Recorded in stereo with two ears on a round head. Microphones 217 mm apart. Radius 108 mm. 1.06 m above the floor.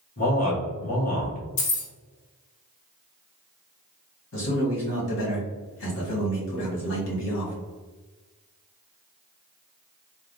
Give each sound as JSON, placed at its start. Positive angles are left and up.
{"t": 0.2, "sound": "a man speaking", "side_deg": 35, "distance_m": 1.6}
{"t": 1.6, "sound": "keys jangling", "side_deg": 75, "distance_m": 1.2}
{"t": 4.3, "sound": "a man speaking", "side_deg": 55, "distance_m": 2.0}